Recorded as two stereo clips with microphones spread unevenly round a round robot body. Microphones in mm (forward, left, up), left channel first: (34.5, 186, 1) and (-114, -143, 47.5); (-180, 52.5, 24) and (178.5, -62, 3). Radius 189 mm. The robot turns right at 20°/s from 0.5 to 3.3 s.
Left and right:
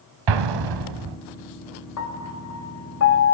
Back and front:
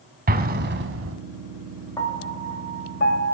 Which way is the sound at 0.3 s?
85° right.